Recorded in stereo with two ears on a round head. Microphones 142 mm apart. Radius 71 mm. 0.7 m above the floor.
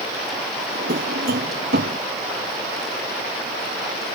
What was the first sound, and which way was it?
A drawer, 65° right (ahead or behind).